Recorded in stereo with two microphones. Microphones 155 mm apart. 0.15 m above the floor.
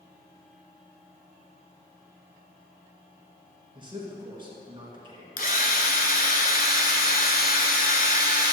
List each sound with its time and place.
3.8 s a man speaking: 30° right (ahead or behind), 1.8 m
5.4 s a drill: 60° left (ahead or behind), 0.8 m